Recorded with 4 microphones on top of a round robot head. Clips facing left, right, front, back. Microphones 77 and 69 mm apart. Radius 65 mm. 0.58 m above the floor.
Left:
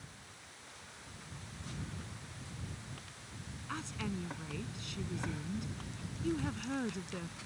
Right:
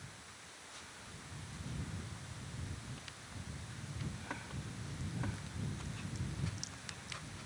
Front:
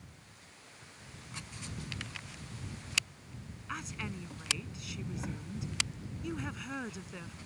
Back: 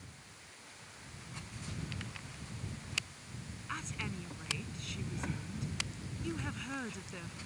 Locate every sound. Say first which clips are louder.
3.7 s a woman speaking: left 10 dB, front 1 dB; 85° left